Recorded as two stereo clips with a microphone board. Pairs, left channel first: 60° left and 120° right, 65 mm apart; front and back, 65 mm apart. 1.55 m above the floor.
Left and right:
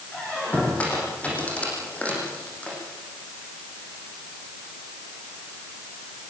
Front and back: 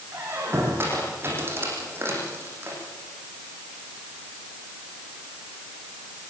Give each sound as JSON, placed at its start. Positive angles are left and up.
{"t": 0.1, "sound": "a squeak", "azimuth_deg": 130, "distance_m": 9.0}